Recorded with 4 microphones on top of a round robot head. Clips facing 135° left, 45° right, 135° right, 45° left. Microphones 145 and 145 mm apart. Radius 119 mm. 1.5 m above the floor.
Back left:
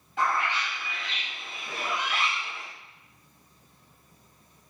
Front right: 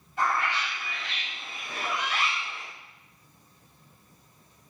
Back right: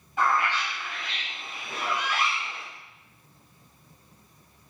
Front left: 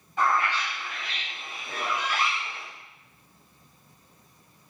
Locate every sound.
0.2 s a bird: 145° left, 2.0 m